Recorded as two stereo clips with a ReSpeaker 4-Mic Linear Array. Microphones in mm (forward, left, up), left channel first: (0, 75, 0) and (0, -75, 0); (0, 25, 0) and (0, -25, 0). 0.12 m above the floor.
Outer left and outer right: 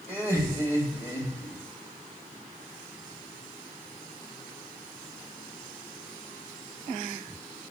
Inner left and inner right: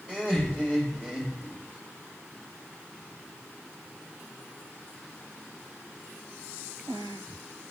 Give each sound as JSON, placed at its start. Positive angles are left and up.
{"t": 0.1, "sound": "laughter", "side_deg": 20, "distance_m": 3.0}